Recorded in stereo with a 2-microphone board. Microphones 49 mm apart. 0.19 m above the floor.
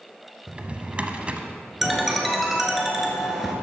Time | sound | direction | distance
0.5 | a drawer | 25° right (ahead or behind) | 0.7 m
1.8 | a ringtone | 5° right (ahead or behind) | 1.1 m